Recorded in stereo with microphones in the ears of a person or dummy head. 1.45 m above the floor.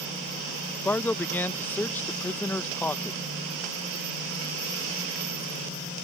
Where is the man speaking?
10° left (ahead or behind).